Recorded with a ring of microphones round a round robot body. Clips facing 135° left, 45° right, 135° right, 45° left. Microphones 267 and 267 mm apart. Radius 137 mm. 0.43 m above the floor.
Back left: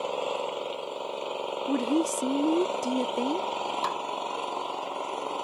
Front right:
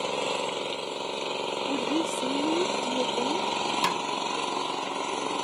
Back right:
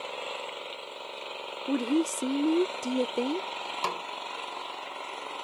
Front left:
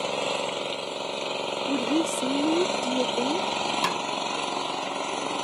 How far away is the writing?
No writing in this recording.